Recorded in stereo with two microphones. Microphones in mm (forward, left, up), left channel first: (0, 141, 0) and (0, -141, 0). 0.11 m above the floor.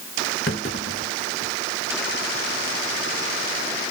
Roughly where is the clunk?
Left.